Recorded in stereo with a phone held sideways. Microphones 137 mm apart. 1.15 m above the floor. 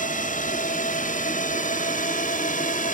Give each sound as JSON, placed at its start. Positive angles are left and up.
{"t": 0.0, "sound": "a drone", "side_deg": 75}